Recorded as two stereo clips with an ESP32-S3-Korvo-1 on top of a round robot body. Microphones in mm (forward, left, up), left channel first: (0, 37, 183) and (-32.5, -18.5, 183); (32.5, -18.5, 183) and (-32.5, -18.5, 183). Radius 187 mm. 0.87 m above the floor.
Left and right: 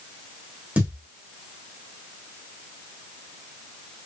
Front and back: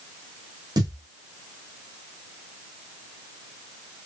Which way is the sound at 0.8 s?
170° left.